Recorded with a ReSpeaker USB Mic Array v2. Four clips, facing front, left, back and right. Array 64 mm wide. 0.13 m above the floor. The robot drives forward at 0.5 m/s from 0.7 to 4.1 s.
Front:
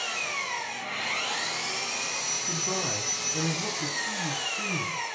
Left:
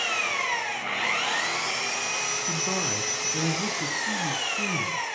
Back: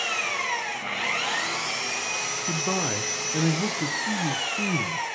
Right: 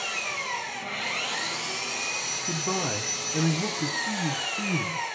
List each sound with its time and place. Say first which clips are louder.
0.0 s an engine running: left 4 dB, back 4 dB; 125° left, 5 m; by 5.1 s 140° left, 6 m
2.5 s a man speaking: right 4 dB, back 4 dB; 170° right, 1.6 m; by 5.0 s 175° right, 2 m